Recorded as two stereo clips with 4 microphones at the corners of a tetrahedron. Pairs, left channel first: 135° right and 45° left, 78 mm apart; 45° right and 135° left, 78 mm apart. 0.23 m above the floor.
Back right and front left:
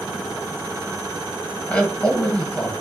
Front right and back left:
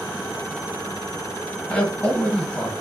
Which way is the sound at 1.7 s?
95° right.